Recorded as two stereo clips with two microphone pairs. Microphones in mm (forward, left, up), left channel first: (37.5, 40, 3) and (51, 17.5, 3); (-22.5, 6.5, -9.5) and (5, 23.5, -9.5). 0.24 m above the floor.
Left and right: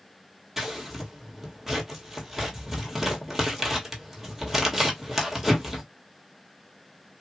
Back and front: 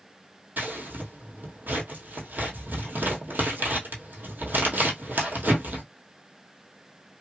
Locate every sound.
0.6 s scissors: 15° left, 1.3 m